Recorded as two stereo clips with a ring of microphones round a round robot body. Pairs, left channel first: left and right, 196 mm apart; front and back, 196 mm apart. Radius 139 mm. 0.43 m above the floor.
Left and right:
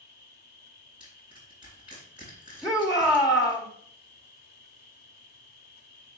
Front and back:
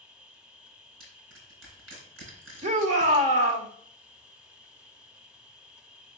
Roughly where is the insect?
Left.